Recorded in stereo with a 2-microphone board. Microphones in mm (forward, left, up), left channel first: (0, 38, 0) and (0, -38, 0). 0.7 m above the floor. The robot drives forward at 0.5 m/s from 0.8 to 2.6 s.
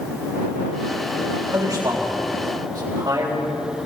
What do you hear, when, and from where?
1.5 s a man speaking: 50° right (ahead or behind), 4 m; by 3.4 s 60° right (ahead or behind), 3.5 m